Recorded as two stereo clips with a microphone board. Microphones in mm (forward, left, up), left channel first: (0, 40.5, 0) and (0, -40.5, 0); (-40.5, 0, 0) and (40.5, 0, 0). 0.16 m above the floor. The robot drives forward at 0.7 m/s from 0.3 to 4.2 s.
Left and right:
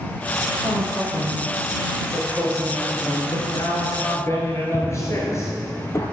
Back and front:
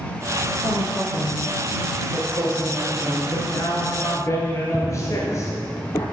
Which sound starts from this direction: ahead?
A woman speaking, at 0.6 s.